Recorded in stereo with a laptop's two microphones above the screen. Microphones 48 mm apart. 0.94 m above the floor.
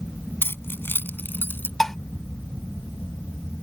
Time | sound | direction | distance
0.4 | keys jangling | 55° left (ahead or behind) | ?
1.8 | dishes clattering | 5° left (ahead or behind) | ?